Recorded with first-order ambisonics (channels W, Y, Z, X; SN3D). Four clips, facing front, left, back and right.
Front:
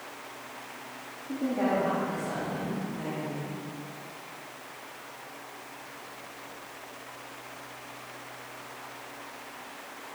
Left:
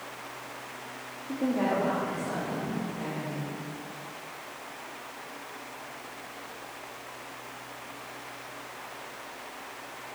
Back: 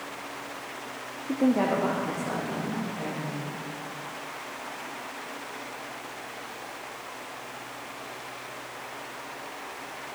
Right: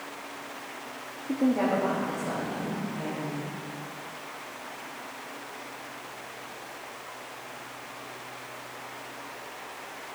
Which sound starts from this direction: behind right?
A woman speaking, at 1.3 s.